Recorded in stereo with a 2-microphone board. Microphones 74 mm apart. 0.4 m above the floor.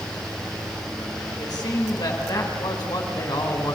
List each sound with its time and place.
1.4 s a man speaking: 65° left (ahead or behind), 3.5 m